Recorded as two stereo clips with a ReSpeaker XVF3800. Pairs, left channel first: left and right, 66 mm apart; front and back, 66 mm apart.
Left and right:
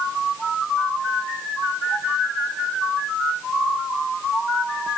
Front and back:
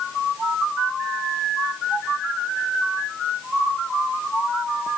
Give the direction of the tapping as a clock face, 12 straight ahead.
I don't hear tapping.